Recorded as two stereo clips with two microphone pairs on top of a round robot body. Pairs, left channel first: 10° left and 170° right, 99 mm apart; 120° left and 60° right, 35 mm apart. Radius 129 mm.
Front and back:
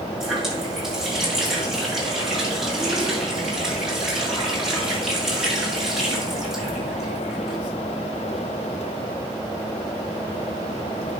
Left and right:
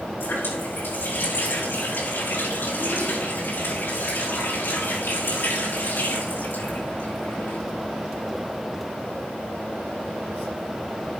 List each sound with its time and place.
0.2 s a running tap: 105° left, 6 m